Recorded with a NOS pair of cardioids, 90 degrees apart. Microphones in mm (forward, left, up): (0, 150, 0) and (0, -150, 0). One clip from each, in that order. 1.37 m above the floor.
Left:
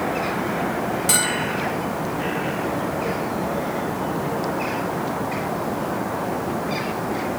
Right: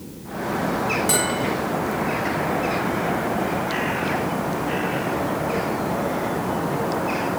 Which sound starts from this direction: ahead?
A bell, at 1.1 s.